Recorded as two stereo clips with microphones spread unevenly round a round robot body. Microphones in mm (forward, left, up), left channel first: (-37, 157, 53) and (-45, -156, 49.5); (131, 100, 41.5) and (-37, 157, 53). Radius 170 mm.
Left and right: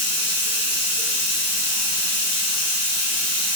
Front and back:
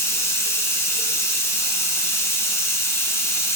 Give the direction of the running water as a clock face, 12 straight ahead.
10 o'clock.